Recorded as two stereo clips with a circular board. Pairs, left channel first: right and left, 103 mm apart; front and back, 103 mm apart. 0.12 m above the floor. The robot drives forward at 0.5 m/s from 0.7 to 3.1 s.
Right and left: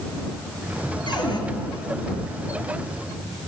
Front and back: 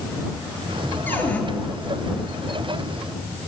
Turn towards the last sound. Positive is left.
turn(degrees=-95)